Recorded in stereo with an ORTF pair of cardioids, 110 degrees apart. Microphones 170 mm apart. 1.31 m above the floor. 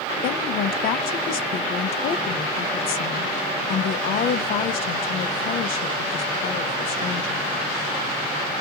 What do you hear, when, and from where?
0.2 s a woman speaking: 70° left, 0.7 m